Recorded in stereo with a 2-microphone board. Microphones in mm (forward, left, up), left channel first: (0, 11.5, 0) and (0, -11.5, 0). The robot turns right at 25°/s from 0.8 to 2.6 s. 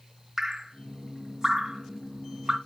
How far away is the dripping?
About 1.6 m.